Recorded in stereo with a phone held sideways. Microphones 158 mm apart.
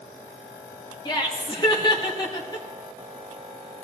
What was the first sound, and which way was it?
Laughter, 30° left (ahead or behind).